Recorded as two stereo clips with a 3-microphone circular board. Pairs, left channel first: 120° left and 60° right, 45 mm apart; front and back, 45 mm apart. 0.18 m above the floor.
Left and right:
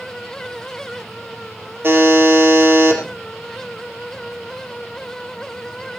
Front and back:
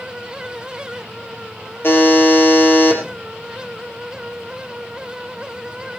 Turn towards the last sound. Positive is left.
turn(degrees=-30)